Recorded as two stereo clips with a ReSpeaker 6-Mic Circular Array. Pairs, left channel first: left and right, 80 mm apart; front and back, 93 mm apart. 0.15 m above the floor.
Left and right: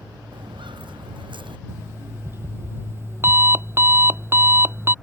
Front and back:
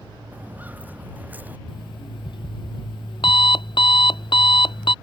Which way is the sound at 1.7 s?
30° right.